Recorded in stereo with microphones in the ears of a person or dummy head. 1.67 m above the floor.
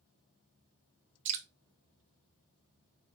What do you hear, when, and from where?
1.2 s dripping: 45° right (ahead or behind), 0.6 m